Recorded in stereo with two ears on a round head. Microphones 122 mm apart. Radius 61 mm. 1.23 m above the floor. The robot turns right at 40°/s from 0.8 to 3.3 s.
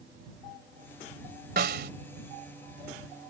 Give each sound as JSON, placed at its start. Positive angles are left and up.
{"t": 1.6, "sound": "a snare drum", "side_deg": -80}